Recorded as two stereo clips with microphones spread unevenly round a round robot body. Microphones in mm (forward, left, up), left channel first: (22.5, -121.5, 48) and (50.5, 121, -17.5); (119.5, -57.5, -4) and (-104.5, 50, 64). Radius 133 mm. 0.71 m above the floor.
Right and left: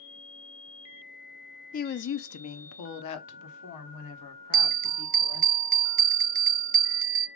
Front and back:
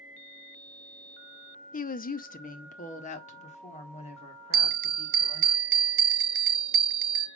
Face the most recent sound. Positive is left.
turn(degrees=95)